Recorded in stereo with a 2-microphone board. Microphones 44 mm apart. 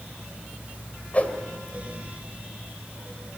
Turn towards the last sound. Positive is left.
turn(degrees=35)  # may be behind; listen again after turning